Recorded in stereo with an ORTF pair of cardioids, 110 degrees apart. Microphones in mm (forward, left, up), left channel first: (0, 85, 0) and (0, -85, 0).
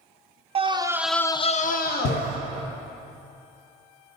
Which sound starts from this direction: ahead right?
A scream, at 0.6 s.